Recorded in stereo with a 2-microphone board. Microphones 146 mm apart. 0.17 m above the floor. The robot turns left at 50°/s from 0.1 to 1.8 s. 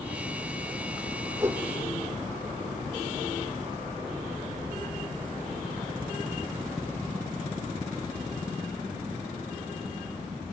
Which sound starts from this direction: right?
A whoosh, at 1.4 s.